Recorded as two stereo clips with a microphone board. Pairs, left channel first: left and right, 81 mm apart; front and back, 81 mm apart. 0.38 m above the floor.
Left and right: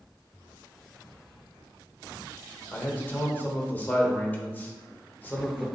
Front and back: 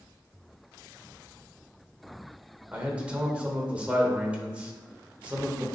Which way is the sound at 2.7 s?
125° left.